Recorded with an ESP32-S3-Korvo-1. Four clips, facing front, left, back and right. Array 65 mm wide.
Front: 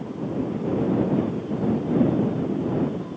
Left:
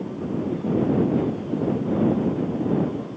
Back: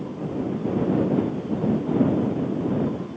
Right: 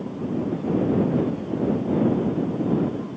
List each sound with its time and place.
Only background noise.